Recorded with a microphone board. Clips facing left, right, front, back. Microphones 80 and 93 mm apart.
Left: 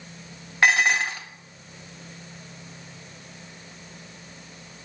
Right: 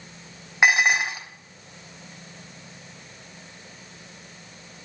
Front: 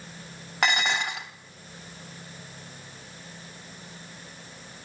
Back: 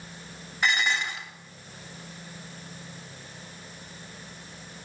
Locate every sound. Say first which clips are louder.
0.6 s dishes clattering: right 1 dB, front 1 dB; 15° right, 1.9 m